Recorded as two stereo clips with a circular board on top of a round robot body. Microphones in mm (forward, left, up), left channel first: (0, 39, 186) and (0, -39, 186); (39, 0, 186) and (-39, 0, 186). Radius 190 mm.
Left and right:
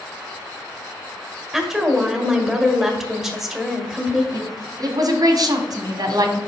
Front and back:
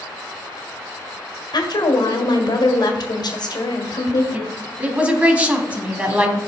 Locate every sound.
1.5 s a woman speaking: 5° right, 1.6 m
4.3 s a woman speaking: 115° right, 1.5 m